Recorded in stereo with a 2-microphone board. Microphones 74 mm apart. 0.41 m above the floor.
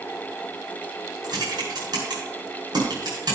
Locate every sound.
1.2 s typing on a keyboard: 70° right (ahead or behind), 6.5 m